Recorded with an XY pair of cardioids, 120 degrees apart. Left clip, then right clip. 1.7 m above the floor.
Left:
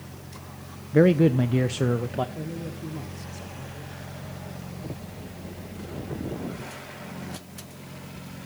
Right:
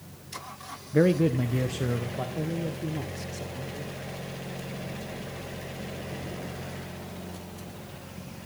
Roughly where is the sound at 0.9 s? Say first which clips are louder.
Left 4 dB; ahead.